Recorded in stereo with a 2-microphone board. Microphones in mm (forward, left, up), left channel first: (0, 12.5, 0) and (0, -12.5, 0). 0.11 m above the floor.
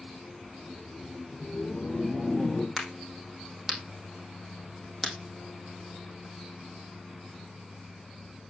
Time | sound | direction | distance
0.5 | laughter | 5° left (ahead or behind) | 5.5 m
2.8 | a crack | centre (ahead or behind) | 4 m